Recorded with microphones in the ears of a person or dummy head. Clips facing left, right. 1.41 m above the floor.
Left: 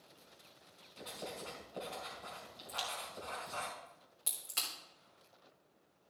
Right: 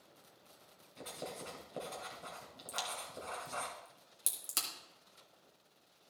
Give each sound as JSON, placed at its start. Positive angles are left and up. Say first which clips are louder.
{"t": 1.0, "sound": "writing", "louder": "right 1 dB", "side_deg": -30, "distance_m": 2.5}
{"t": 2.7, "sound": "a crack", "louder": "even", "side_deg": -45, "distance_m": 1.7}